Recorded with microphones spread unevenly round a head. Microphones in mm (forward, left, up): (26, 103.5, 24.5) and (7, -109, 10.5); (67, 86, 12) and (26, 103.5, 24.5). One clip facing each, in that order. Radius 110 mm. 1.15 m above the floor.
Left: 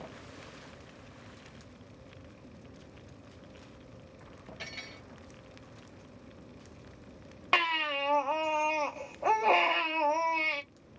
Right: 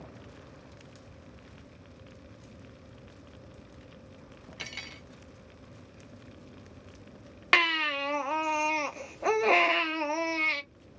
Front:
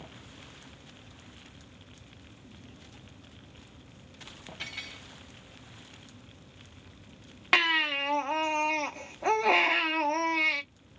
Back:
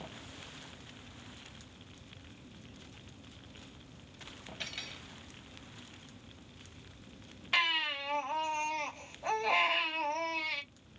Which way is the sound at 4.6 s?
70° right.